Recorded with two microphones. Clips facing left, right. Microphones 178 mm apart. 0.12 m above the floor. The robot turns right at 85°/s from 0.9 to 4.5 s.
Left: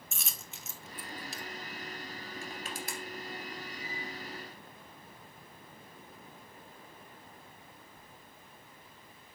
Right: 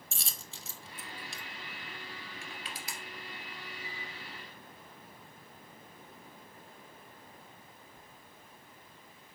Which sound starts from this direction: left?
Crushing, at 2.4 s.